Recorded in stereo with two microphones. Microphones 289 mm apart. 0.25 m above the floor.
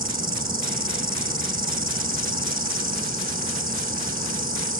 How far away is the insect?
About 0.8 m.